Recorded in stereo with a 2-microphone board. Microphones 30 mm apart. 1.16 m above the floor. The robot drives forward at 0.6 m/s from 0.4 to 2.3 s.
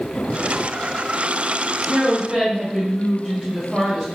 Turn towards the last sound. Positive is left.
turn(degrees=-5)  # may be behind; listen again after turning